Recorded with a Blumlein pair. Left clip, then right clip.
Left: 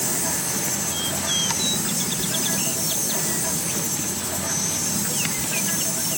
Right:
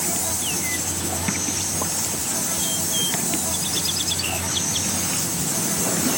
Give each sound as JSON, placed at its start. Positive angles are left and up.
{"t": 0.0, "sound": "an insect", "azimuth_deg": 0, "distance_m": 1.7}